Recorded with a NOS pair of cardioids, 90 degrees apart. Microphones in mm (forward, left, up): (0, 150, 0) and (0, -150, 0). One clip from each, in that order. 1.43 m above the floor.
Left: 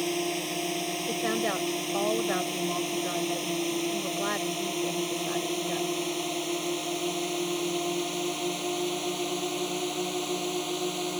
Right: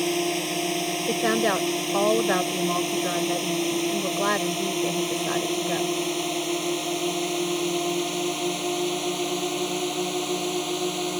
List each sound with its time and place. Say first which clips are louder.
0.0 s a drone: right 5 dB; 30° right; by 11.2 s 25° right
1.1 s a woman speaking: right 7 dB; 50° right